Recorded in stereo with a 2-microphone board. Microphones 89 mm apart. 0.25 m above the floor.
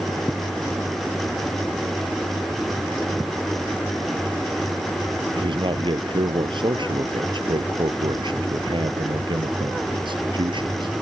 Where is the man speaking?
65° right (ahead or behind).